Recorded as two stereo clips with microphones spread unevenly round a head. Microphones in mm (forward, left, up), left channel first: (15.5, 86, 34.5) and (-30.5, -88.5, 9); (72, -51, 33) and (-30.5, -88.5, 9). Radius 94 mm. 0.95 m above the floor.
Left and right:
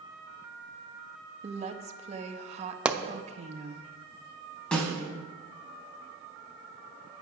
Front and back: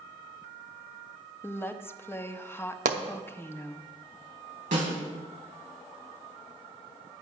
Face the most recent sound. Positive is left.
turn(degrees=160)